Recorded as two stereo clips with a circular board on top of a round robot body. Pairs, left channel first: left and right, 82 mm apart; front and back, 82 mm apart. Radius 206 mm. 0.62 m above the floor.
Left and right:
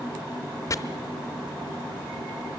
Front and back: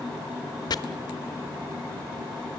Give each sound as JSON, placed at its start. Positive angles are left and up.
{"t": 0.7, "sound": "chopping", "azimuth_deg": 40, "distance_m": 0.7}